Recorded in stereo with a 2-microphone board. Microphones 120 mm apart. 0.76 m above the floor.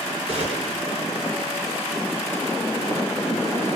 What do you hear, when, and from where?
0.3 s a gunshot: 55° right (ahead or behind), 3.5 m